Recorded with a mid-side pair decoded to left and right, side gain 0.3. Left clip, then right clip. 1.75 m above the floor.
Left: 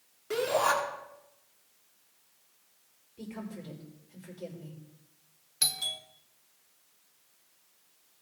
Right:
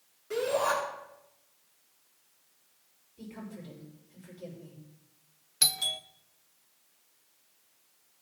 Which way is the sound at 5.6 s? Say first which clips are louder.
Right 3 dB; 45° right.